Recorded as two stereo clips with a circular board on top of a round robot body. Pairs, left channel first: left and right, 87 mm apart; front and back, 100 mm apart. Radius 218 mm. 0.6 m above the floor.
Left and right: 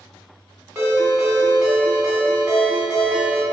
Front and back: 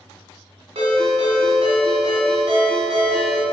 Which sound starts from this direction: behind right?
A ringtone, at 0.8 s.